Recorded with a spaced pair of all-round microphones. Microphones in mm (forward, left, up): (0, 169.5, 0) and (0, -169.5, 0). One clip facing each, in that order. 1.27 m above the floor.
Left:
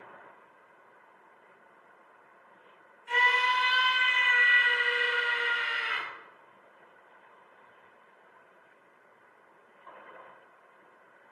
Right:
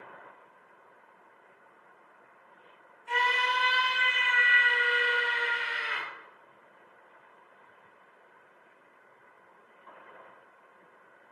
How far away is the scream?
About 5 m.